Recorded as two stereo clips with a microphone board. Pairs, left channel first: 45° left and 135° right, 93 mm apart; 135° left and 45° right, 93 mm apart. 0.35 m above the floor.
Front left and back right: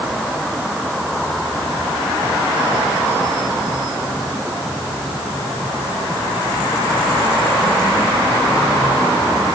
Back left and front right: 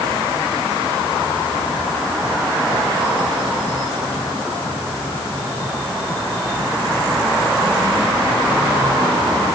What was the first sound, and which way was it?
Only background noise.